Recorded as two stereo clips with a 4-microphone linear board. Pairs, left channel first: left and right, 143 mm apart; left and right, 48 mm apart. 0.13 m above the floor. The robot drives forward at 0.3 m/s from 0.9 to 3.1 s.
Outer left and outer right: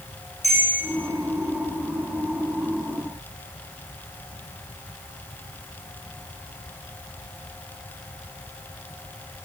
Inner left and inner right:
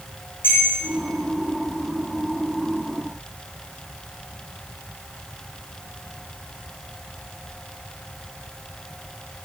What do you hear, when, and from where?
0.4 s a bell: 50° left (ahead or behind), 7.5 m